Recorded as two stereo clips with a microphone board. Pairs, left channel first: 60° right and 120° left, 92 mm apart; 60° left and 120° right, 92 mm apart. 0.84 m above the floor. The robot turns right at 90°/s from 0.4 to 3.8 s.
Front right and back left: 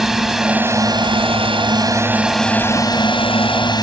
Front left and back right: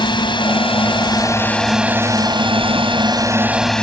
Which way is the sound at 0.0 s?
35° left.